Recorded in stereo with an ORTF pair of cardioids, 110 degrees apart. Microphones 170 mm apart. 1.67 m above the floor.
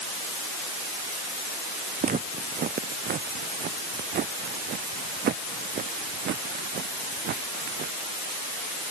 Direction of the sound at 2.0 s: 55° right.